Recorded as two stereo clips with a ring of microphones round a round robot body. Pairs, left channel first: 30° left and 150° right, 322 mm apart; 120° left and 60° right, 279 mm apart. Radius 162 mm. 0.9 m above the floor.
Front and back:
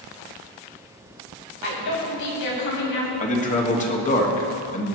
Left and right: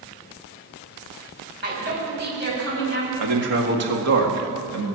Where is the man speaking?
35° right, 2.0 m.